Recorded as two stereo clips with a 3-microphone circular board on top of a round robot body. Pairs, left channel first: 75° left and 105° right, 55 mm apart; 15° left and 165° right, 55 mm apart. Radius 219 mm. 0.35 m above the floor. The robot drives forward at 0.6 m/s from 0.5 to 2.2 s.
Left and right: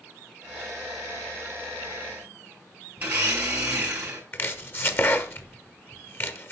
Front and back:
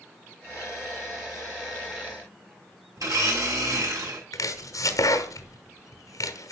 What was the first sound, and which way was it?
A blender, 170° right.